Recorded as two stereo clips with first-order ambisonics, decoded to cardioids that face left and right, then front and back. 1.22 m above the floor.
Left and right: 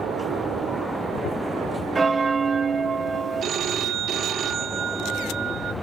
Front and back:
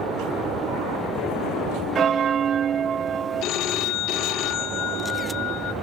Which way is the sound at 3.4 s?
35° right.